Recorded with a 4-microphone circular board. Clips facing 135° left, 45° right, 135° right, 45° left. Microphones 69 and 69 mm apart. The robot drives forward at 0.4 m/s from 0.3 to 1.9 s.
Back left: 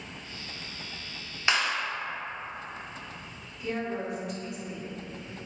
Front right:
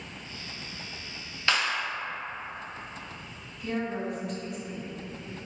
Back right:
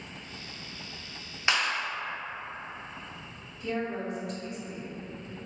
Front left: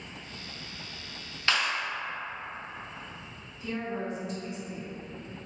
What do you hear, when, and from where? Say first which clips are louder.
1.5 s a clap: even, even; 175° left, 0.7 m; by 1.8 s straight behind, 0.8 m
3.6 s a woman speaking: front right 1 dB, back right 2 dB; 150° right, 1.5 m